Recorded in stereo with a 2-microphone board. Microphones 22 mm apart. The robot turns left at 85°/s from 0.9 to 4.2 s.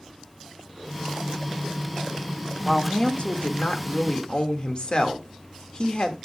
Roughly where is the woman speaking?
Behind.